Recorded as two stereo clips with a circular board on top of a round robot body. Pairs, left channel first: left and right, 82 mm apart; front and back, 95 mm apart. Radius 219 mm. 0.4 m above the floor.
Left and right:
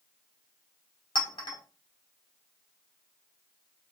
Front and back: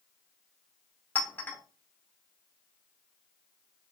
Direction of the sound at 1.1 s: 70° left.